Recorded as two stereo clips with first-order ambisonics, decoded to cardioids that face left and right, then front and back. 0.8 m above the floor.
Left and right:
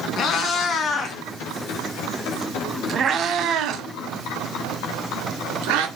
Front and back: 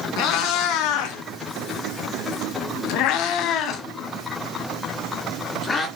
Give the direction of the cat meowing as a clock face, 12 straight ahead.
11 o'clock.